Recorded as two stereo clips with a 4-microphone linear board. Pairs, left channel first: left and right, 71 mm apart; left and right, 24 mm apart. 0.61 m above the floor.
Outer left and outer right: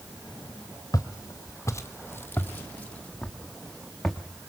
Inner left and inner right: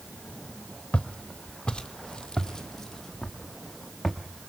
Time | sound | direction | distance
0.9 | footsteps | 60° left (ahead or behind) | 1.4 m